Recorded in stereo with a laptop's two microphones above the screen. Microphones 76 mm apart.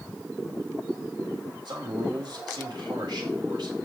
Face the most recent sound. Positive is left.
turn(degrees=-70)  # may be behind; listen again after turning